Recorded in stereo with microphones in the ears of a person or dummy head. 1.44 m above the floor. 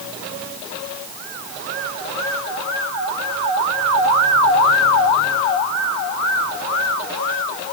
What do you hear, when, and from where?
Only background noise.